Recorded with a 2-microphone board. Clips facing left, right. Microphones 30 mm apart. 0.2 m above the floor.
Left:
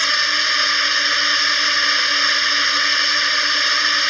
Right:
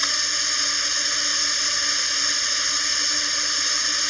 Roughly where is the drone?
Left.